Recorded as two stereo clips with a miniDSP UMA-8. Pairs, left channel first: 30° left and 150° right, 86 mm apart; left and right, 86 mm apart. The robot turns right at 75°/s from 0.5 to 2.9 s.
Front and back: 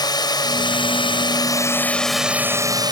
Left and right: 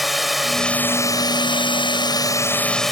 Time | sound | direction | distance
0.0 | a drone | straight ahead | ?